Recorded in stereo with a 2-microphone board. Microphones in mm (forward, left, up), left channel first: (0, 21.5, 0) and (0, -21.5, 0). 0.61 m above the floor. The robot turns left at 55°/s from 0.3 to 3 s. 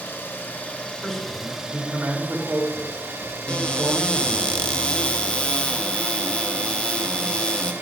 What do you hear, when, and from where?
0.0 s an engine running: 60° left, 1.9 m; by 7.8 s 90° right, 1.9 m
1.0 s a man speaking: straight ahead, 2.5 m; by 4.5 s 105° right, 2.5 m
3.5 s a cupboard door: 25° left (ahead or behind), 0.7 m